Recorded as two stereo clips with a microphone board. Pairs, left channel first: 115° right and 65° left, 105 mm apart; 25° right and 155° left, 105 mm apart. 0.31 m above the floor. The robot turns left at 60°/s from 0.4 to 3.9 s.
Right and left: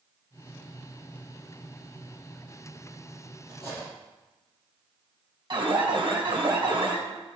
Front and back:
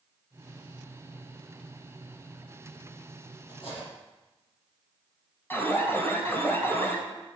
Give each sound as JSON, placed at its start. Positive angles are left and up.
{"t": 3.5, "sound": "cutlery clinking", "azimuth_deg": 20, "distance_m": 6.5}
{"t": 5.5, "sound": "an alarm", "azimuth_deg": 40, "distance_m": 3.5}